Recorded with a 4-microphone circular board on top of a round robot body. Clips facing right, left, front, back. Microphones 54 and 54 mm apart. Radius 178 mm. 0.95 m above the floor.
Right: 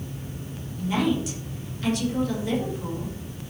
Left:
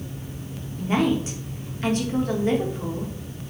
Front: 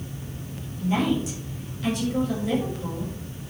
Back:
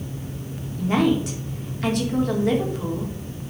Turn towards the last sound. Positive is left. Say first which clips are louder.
# left 2 dB, back 4 dB
turn(degrees=145)